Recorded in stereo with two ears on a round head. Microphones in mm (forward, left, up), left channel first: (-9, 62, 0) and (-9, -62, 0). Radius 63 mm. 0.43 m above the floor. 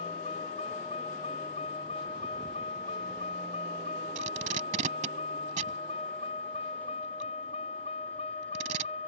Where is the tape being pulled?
50° right (ahead or behind).